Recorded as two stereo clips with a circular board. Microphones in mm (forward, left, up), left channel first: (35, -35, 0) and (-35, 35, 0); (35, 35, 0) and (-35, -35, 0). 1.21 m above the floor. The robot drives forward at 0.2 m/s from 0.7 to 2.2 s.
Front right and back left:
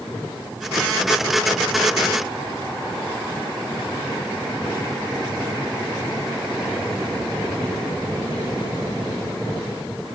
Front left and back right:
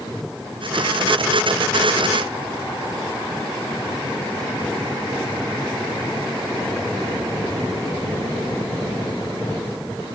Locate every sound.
Only background noise.